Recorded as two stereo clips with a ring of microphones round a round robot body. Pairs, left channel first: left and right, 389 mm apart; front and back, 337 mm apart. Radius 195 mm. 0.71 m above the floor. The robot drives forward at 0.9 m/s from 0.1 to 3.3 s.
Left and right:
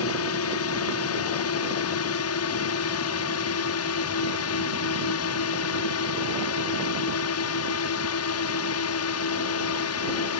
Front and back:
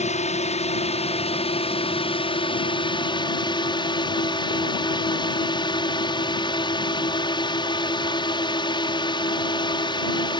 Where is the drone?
60° left; by 10.4 s 70° left.